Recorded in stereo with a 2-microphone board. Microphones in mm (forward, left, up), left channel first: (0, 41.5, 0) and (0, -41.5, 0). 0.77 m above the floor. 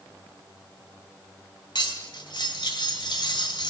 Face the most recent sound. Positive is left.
turn(degrees=70)  # may be behind; listen again after turning